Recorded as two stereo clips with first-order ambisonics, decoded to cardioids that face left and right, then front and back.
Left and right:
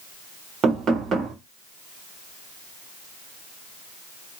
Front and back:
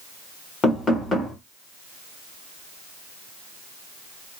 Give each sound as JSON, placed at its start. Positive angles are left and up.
{"t": 0.6, "sound": "knocking", "azimuth_deg": -55, "distance_m": 1.1}